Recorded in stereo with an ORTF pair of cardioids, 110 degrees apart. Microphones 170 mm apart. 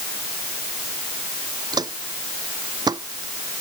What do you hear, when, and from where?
1.7 s footsteps: 25° right